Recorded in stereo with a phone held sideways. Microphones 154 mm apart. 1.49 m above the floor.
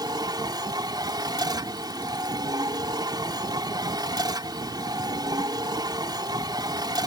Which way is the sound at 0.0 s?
25° right (ahead or behind).